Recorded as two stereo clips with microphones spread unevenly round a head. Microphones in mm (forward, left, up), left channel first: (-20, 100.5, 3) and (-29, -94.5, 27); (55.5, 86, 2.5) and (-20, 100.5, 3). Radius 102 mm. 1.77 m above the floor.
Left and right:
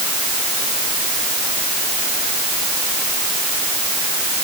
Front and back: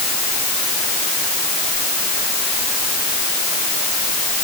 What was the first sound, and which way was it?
Only background noise.